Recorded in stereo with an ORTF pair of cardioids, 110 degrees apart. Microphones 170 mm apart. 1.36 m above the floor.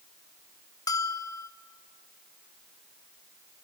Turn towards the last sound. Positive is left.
turn(degrees=20)